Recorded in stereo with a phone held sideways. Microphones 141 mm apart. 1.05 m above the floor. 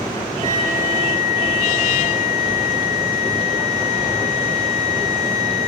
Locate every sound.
0.4 s a flute: 50° right (ahead or behind), 3 m